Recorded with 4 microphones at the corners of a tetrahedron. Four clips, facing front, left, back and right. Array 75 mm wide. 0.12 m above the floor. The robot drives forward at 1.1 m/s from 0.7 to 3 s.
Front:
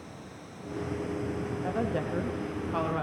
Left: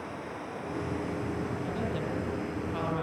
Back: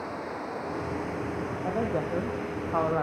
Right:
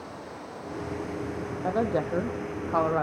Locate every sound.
0.0 s running water: 175° right, 2 m; by 3.0 s straight behind, 4.5 m
1.6 s a woman speaking: 105° right, 4.5 m; by 3.0 s 125° right, 5 m